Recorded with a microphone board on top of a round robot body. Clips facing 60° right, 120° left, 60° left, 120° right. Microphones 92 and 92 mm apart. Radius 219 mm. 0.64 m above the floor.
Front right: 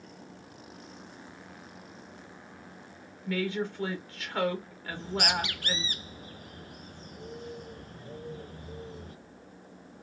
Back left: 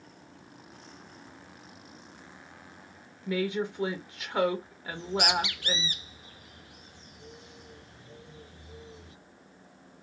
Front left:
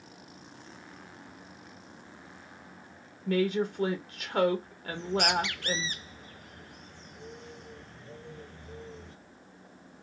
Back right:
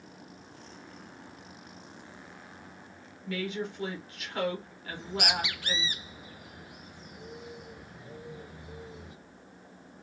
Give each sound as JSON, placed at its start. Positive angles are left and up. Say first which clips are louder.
{"t": 3.3, "sound": "a woman speaking", "louder": "back left 1 dB, front left 7 dB", "azimuth_deg": 50, "distance_m": 1.3}
{"t": 4.9, "sound": "a bird", "louder": "back left 2 dB, front left 4 dB", "azimuth_deg": -40, "distance_m": 0.6}